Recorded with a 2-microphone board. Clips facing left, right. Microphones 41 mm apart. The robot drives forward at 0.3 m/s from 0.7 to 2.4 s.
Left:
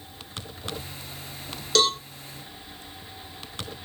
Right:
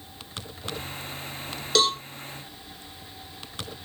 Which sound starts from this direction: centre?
A cowbell, at 1.8 s.